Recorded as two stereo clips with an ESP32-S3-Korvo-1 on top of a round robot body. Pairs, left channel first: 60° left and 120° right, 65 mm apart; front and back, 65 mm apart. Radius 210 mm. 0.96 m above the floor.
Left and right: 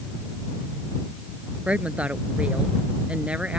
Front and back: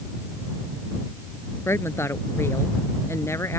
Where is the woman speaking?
50° right; by 3.6 s 45° right.